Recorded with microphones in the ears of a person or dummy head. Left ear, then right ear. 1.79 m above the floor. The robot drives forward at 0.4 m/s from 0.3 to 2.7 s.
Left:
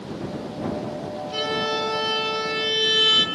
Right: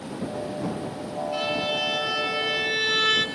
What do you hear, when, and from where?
1.3 s a violin: 80° left, 4 m; by 3.2 s 75° left (ahead or behind), 4.5 m